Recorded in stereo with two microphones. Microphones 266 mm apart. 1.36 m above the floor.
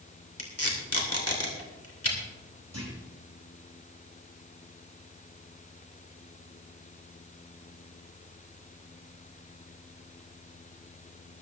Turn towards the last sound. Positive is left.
turn(degrees=-75)  # may be behind; listen again after turning